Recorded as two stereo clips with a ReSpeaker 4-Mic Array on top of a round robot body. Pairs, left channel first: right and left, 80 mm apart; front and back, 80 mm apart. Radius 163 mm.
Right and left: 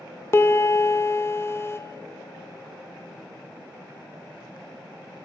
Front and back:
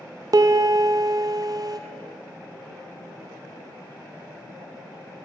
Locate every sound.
0.3 s a piano: 145° right, 0.6 m